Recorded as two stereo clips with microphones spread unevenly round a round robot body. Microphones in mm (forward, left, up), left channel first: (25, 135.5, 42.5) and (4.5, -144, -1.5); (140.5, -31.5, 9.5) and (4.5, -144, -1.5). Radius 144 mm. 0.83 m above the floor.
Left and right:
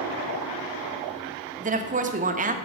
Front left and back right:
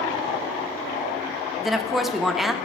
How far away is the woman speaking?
About 1.3 m.